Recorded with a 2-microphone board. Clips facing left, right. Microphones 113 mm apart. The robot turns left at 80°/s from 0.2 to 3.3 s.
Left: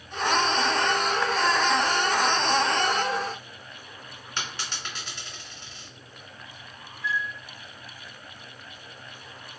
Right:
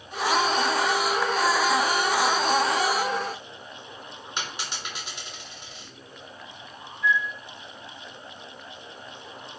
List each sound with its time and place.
4.4 s a dropped coin: 15° right (ahead or behind), 1.8 m
7.0 s a flute: 75° left (ahead or behind), 1.2 m